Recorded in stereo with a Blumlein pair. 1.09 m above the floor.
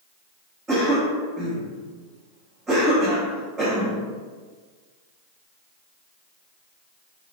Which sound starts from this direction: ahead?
A cough, at 0.7 s.